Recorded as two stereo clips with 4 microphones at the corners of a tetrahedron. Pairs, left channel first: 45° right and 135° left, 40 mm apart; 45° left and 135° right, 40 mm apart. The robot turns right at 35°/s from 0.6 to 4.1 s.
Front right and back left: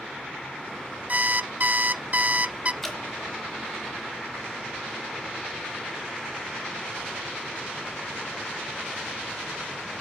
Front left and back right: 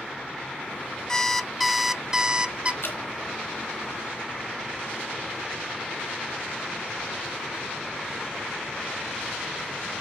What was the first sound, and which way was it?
An alarm clock, 115° left.